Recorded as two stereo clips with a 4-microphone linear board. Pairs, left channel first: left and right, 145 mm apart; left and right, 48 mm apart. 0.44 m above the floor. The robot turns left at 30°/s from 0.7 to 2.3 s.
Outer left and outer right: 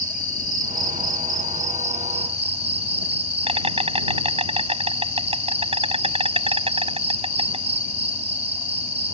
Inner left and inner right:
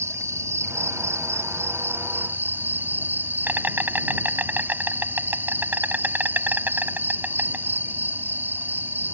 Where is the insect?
85° right; by 9.1 s 130° right.